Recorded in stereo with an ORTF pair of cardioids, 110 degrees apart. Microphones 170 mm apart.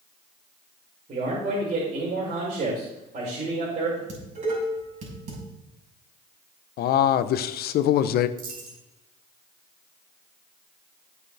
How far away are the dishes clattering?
About 6.5 m.